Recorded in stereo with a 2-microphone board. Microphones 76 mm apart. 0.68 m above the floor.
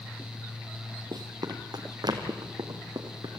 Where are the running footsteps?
65° right (ahead or behind), 1.6 m; by 3.4 s 70° right (ahead or behind), 3 m.